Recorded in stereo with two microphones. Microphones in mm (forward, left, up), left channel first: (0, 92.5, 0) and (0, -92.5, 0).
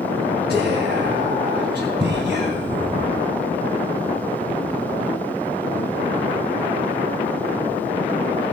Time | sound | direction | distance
0.5 | whispering | 60° right (ahead or behind) | 3 m